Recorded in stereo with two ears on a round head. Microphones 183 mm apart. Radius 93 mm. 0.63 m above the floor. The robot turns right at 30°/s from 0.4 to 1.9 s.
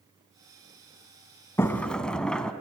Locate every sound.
1.6 s a sliding door: 15° left (ahead or behind), 1.0 m; by 2.5 s 5° left (ahead or behind), 1.0 m